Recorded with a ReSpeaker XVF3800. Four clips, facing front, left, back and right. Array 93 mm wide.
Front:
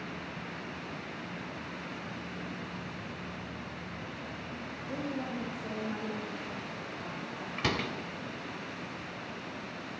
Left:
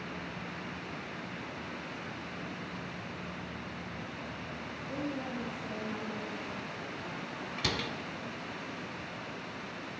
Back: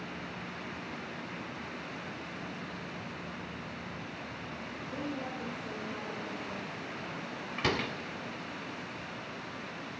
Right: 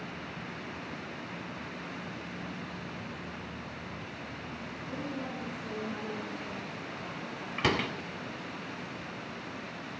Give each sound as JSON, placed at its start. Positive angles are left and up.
{"t": 4.9, "sound": "a woman speaking", "azimuth_deg": 20, "distance_m": 5.5}
{"t": 7.6, "sound": "a door slam", "azimuth_deg": -85, "distance_m": 0.8}